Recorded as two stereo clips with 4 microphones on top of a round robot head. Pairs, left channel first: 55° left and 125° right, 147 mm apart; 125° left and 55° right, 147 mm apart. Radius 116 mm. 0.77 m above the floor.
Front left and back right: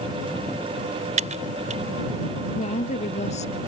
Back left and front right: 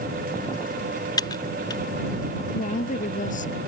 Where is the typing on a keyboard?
170° right.